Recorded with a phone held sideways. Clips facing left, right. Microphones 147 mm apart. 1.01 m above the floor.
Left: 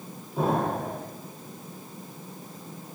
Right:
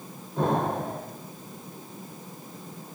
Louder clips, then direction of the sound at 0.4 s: Even; 5° left (ahead or behind).